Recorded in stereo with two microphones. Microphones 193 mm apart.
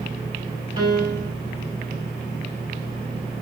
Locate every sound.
0.8 s a piano: 30° right (ahead or behind), 3.5 m